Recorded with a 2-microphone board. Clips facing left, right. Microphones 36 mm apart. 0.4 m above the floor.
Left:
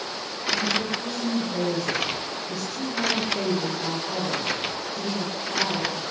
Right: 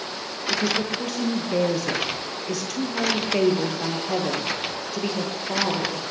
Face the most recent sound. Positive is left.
turn(degrees=-80)